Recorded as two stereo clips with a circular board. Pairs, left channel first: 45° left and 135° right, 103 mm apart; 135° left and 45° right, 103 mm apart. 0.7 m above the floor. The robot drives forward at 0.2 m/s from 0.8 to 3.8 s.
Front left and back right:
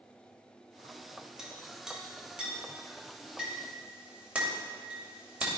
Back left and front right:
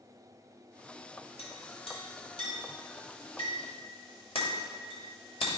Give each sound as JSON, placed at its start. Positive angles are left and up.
{"t": 1.4, "sound": "a clink", "azimuth_deg": 140, "distance_m": 2.0}